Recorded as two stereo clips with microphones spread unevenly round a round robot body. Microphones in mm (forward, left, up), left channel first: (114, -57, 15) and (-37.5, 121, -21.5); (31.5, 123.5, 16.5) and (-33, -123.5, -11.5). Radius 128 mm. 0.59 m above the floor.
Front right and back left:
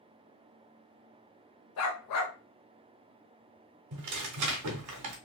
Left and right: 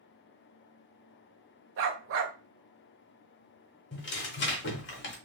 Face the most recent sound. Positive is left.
turn(degrees=125)